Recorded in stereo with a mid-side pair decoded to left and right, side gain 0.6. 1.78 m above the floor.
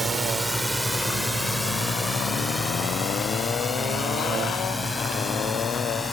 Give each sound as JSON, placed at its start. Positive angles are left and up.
{"t": 0.0, "sound": "a drone", "azimuth_deg": -10}